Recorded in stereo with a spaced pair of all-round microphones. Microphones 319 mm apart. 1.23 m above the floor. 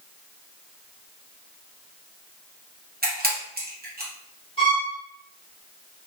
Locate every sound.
3.0 s a camera shutter: 30° right (ahead or behind), 0.7 m
4.6 s a violin: 20° left (ahead or behind), 1.4 m